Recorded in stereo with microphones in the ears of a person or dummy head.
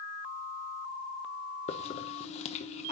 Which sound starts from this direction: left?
A hiss, at 1.7 s.